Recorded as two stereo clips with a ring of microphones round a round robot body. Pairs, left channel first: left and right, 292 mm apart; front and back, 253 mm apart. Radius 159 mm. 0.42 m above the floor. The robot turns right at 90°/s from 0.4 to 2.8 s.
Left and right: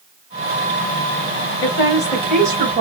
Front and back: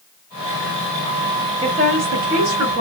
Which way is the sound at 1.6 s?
115° left.